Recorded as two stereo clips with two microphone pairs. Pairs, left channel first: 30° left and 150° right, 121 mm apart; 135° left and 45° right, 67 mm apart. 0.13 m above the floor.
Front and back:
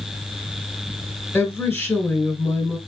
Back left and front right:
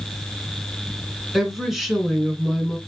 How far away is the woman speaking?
About 1.4 m.